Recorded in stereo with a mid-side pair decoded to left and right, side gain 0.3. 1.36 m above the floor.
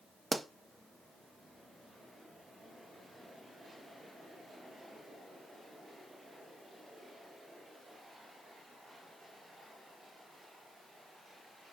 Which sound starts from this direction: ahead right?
A pop, at 0.3 s.